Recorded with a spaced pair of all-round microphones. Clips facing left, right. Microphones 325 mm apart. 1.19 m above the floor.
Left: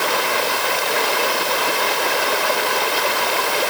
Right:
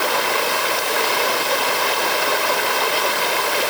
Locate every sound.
Only background noise.